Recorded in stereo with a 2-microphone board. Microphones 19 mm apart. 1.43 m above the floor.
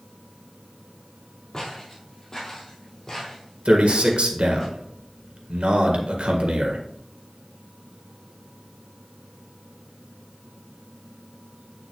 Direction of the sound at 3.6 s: 85° right.